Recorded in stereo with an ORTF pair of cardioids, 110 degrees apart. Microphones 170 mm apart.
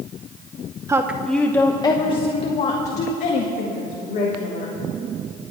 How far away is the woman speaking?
About 0.9 m.